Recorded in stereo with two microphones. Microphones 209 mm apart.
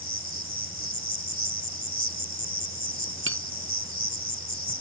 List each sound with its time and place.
0.0 s an insect: 45° left (ahead or behind)
3.3 s tapping: 85° right